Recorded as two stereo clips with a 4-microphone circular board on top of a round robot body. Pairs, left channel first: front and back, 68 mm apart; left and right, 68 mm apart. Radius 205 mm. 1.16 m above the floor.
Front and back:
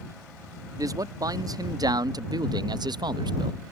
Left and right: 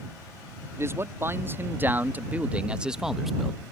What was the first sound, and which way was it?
A man speaking, 145° right.